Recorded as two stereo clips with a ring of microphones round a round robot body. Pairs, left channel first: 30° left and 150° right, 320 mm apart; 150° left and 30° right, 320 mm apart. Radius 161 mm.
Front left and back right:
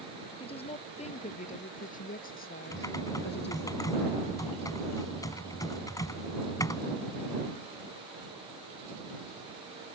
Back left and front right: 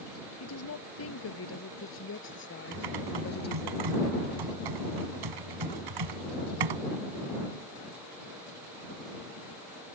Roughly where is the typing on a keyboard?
Ahead right.